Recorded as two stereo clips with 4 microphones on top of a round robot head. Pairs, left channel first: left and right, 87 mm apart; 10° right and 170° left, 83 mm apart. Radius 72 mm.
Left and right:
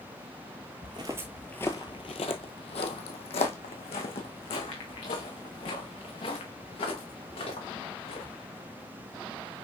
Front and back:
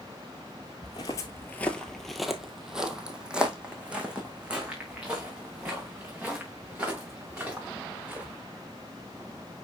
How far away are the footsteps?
About 0.8 m.